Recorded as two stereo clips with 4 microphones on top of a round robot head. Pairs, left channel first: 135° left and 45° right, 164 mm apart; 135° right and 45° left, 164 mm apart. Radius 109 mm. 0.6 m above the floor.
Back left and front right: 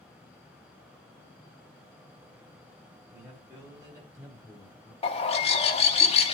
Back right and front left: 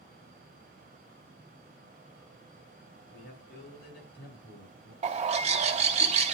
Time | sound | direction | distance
3.1 | a man speaking | 115° right | 5.5 m
5.0 | a bird | 90° left | 1.1 m